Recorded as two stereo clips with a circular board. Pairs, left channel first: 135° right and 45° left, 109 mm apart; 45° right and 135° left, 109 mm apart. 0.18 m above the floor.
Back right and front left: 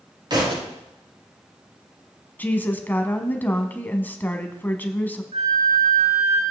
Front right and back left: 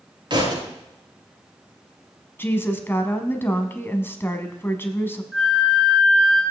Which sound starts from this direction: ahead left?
A flute, at 5.3 s.